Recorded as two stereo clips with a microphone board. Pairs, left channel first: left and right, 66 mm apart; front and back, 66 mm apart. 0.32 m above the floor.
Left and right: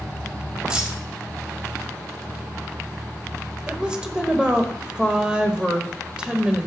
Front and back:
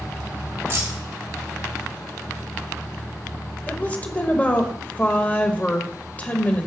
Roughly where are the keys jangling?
Behind.